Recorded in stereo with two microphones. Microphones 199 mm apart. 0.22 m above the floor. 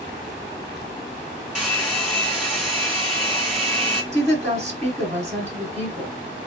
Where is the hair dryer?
5° right (ahead or behind), 1.9 m.